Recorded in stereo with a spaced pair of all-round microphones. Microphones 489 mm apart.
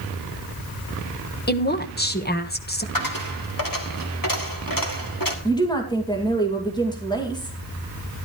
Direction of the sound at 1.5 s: 20° left (ahead or behind).